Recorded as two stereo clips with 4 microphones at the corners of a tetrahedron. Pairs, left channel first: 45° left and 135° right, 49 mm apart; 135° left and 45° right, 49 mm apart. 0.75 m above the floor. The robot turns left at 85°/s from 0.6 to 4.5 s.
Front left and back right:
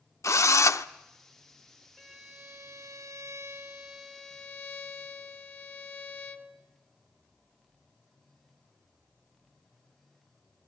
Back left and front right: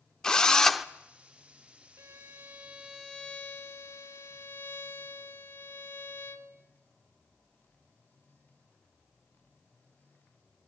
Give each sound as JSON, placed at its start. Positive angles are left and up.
{"t": 0.2, "sound": "a drill", "azimuth_deg": 60, "distance_m": 0.9}
{"t": 2.0, "sound": "a violin", "azimuth_deg": -45, "distance_m": 2.0}